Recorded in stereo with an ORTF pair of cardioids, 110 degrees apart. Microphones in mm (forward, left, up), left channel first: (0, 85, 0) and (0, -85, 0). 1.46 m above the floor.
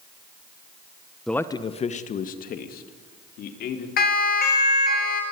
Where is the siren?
65° left, 4.5 m.